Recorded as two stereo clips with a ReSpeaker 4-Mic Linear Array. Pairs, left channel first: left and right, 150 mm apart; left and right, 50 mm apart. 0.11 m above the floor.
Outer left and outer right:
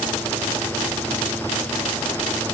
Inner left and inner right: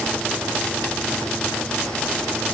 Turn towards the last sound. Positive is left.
No sound to turn to.